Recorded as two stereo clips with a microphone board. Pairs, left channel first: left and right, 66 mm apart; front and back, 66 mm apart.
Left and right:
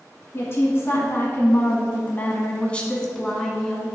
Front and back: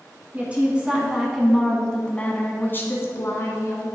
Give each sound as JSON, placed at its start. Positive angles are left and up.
{"t": 0.3, "sound": "a woman speaking", "azimuth_deg": 120, "distance_m": 1.8}